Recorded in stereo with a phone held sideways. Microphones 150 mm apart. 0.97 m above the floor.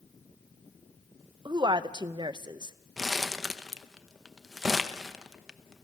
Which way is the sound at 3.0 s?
Centre (ahead or behind).